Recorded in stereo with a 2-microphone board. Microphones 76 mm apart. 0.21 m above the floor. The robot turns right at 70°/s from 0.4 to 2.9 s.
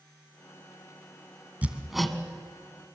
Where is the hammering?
20° right (ahead or behind), 1.5 m; by 2.2 s 10° left (ahead or behind), 1.5 m.